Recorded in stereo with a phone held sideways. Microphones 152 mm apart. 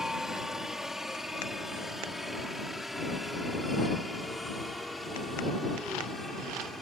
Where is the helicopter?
5° right (ahead or behind); by 6.8 s centre (ahead or behind).